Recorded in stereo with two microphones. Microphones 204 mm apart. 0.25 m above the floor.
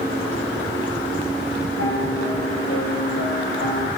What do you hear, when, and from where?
1.8 s a piano: 75° left (ahead or behind), 4 m